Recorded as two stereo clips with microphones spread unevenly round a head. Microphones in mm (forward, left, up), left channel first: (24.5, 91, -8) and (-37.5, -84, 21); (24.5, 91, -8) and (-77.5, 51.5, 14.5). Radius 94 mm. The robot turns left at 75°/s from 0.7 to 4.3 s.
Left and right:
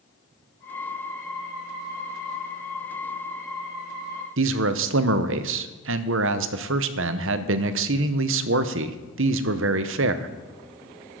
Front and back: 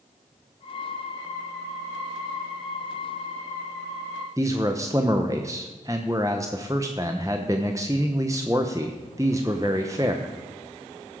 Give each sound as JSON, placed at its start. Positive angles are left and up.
{"t": 4.4, "sound": "a man speaking", "azimuth_deg": -85, "distance_m": 0.8}